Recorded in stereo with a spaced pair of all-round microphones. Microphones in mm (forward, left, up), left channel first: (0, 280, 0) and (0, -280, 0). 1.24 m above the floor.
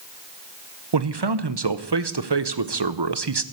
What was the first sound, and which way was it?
A man speaking, 45° right (ahead or behind).